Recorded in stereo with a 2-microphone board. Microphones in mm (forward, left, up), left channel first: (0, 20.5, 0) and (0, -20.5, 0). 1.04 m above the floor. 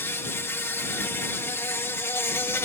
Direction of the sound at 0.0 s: 75° left (ahead or behind).